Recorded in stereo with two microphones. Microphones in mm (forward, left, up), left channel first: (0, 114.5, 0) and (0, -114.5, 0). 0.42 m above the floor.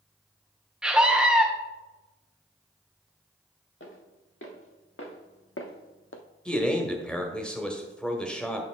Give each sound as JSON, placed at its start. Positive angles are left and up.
{"t": 0.8, "sound": "a scream", "side_deg": -5, "distance_m": 0.9}
{"t": 3.8, "sound": "footsteps", "side_deg": 60, "distance_m": 3.0}
{"t": 6.5, "sound": "a man speaking", "side_deg": 5, "distance_m": 1.4}